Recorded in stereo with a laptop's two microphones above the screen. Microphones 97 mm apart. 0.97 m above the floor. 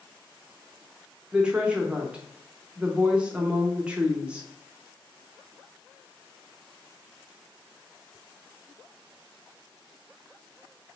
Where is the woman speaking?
10° right (ahead or behind), 0.7 m.